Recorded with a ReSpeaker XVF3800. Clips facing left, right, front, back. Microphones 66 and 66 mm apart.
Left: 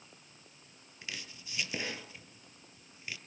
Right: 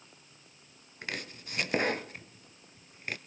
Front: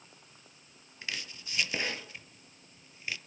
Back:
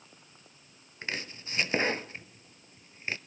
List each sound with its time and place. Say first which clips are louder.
1.0 s chopping: right 7 dB, back 4 dB; 125° right, 0.7 m